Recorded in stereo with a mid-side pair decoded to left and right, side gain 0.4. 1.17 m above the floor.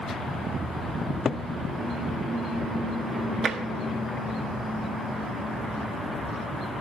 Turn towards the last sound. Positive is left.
turn(degrees=-60)